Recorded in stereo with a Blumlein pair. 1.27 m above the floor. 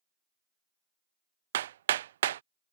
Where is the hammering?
60° right.